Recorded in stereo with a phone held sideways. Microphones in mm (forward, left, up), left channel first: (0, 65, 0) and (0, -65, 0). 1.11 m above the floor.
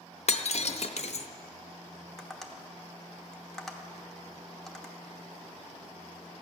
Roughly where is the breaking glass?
Left.